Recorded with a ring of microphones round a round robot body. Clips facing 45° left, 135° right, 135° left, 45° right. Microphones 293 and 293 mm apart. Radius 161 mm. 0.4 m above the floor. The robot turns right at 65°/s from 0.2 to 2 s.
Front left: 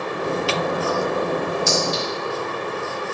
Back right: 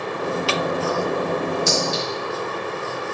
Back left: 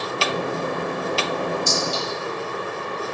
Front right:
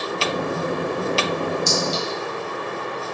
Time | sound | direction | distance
1.7 | a clink | 70° right | 2.5 m